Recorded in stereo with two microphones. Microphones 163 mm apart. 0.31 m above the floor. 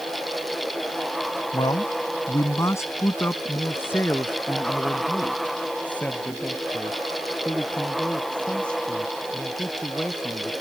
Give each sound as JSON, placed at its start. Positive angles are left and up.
{"t": 1.5, "sound": "a man speaking", "side_deg": 30}